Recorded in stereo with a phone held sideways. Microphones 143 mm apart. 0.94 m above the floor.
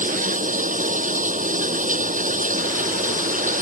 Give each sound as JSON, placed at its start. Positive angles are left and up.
{"t": 0.0, "sound": "running water", "side_deg": -70}